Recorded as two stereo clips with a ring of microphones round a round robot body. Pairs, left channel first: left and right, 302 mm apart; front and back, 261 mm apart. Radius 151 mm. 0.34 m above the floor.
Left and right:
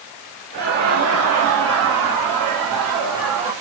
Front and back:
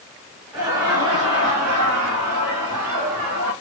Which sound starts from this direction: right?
Laughter, at 0.5 s.